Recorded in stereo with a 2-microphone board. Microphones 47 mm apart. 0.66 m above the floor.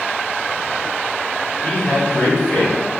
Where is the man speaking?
40° left (ahead or behind), 1.4 m; by 2.9 s 30° left (ahead or behind), 2.0 m.